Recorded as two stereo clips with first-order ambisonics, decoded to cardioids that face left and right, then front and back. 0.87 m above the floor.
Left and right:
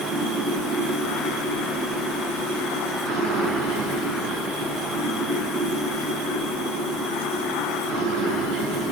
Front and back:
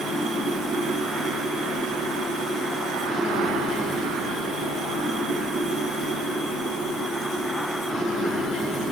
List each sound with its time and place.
0.0 s running water: 65° right, 6 m